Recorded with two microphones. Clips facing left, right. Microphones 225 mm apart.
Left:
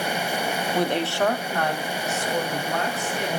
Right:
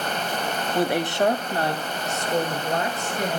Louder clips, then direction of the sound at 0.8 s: Right 2 dB; centre (ahead or behind).